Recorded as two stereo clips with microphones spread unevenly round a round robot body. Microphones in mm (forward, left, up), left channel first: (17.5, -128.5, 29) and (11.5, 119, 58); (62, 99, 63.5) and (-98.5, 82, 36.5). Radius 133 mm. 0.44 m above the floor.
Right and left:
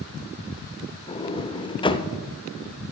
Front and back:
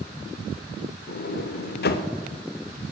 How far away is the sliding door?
About 0.6 m.